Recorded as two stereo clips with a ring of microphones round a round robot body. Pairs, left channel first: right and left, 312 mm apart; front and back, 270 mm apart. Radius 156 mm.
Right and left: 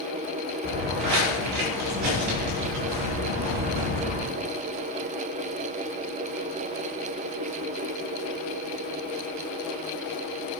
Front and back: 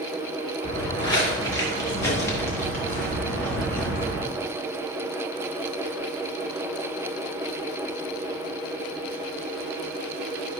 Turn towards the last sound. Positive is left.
turn(degrees=85)